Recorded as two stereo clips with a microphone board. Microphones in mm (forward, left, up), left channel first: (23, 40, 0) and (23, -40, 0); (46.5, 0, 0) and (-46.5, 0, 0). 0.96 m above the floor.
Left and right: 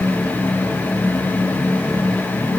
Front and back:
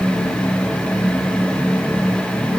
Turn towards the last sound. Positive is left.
No sound to turn to.